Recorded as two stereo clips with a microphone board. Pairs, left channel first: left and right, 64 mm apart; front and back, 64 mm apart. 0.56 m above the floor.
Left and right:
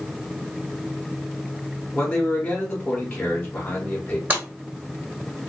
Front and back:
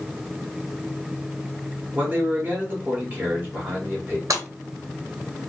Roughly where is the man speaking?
Behind left.